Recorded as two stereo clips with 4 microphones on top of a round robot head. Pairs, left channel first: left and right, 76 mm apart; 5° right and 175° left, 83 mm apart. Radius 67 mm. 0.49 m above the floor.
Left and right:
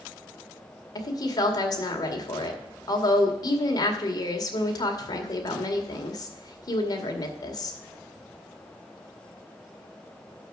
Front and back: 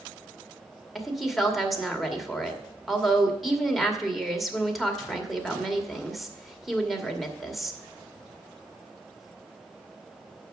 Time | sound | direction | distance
0.9 | a woman speaking | 85° left | 2 m